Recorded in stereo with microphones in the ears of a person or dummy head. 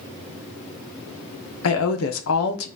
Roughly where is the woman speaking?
Left.